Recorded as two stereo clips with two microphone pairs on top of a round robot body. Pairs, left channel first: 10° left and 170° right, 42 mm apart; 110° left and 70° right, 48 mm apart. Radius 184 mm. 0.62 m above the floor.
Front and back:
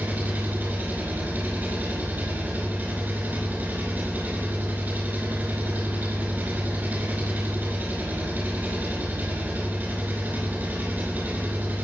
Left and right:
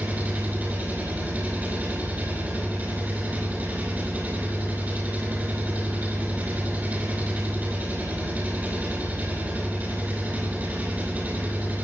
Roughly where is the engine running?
Behind right.